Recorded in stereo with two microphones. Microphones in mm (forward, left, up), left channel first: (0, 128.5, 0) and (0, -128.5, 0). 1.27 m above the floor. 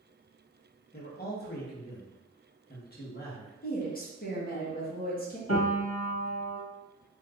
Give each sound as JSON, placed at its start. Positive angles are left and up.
{"t": 0.9, "sound": "a man speaking", "side_deg": 35, "distance_m": 1.0}
{"t": 3.6, "sound": "a woman speaking", "side_deg": 35, "distance_m": 1.0}
{"t": 5.5, "sound": "a piano", "side_deg": 70, "distance_m": 1.3}